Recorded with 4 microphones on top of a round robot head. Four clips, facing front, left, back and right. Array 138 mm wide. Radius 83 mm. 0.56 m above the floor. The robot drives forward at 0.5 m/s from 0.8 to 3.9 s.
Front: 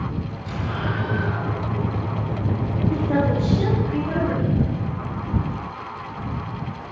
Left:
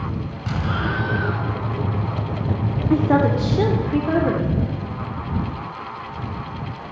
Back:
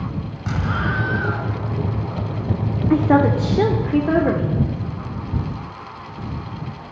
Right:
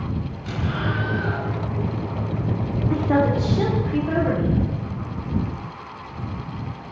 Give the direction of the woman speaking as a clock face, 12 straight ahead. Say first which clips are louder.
Left 3 dB, back 7 dB; 7 o'clock.